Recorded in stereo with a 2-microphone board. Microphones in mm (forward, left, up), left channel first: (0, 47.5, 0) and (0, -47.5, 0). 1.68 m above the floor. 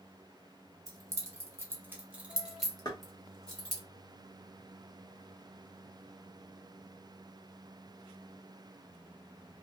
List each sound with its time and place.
0.9 s keys jangling: 35° right (ahead or behind), 0.9 m; by 3.8 s 15° left (ahead or behind), 1.2 m
2.9 s knocking: 40° left (ahead or behind), 1.1 m